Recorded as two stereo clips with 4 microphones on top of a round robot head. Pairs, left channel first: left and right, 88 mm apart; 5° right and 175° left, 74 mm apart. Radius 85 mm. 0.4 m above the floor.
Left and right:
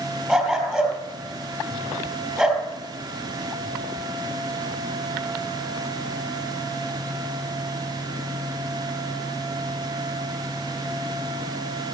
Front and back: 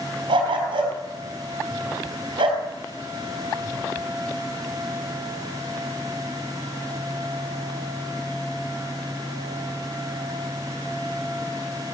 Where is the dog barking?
175° right, 4 m.